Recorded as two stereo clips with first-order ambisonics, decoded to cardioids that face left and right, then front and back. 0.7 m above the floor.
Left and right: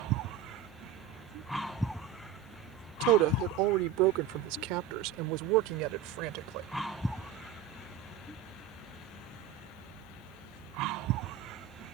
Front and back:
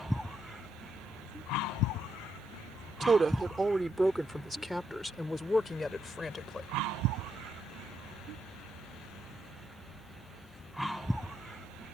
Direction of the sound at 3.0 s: 110° right.